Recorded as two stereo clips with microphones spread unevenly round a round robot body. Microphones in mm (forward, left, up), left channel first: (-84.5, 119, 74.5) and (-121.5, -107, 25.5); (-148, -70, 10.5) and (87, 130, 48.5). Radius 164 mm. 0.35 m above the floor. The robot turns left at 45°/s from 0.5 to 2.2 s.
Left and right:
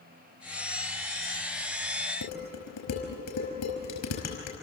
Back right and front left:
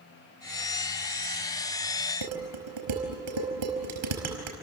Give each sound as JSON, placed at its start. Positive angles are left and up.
{"t": 2.2, "sound": "dishes clattering", "azimuth_deg": 45, "distance_m": 5.0}